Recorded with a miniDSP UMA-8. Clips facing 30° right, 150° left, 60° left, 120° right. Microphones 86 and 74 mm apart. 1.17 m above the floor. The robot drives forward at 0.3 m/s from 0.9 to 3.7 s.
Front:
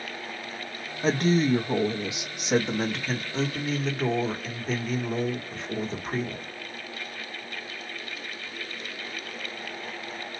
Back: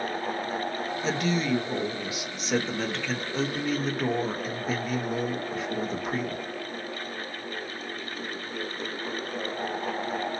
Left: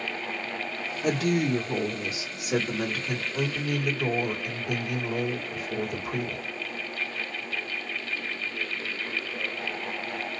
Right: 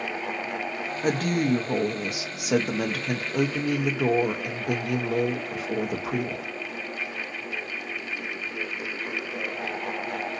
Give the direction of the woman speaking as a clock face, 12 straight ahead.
3 o'clock.